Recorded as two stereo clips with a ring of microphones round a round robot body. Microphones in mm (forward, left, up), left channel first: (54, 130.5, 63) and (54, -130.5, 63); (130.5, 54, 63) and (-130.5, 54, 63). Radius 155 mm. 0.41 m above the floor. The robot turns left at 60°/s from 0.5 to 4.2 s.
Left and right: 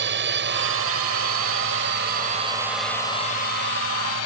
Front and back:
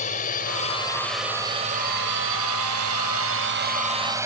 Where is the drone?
55° right; by 4.3 s 100° left.